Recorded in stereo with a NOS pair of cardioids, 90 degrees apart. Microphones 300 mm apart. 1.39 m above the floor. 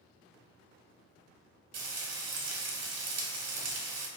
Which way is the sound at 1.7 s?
55° right.